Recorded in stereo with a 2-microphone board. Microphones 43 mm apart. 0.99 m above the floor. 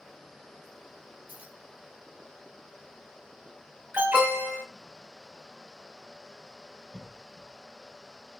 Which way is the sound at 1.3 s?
40° right (ahead or behind).